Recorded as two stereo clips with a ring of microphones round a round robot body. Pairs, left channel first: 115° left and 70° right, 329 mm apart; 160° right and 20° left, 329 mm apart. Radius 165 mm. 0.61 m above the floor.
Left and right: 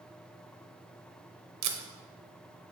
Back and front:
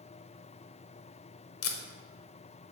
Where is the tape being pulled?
110° right, 0.7 m.